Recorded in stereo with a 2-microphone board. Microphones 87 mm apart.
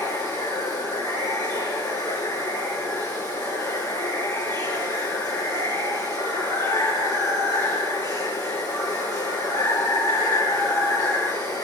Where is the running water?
45° left (ahead or behind), 4.5 m.